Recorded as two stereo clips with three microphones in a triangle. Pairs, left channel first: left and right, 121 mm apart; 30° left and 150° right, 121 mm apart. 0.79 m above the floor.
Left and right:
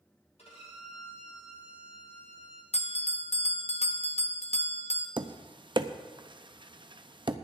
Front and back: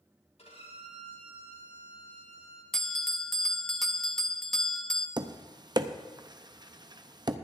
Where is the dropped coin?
No dropped coin in this recording.